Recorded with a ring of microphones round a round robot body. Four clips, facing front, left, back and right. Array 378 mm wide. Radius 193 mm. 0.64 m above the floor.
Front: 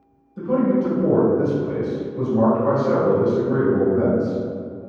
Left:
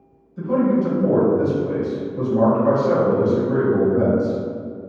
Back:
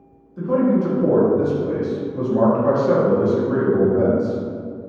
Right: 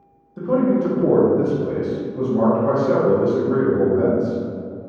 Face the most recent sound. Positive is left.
turn(degrees=155)